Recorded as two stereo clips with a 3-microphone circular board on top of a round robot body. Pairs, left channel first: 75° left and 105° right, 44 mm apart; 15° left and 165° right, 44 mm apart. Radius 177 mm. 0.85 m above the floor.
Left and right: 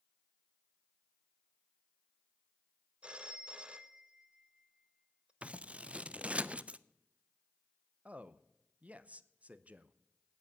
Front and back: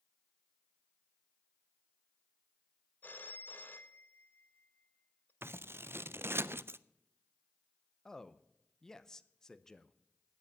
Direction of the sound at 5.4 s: 160° right.